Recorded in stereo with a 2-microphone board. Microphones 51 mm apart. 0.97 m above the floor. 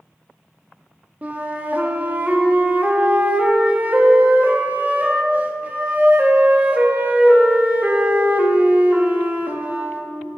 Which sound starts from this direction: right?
A flute, at 1.2 s.